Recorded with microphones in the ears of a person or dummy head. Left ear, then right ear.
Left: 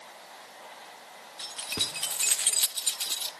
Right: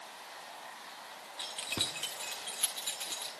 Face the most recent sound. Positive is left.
turn(degrees=20)  # may be behind; listen again after turning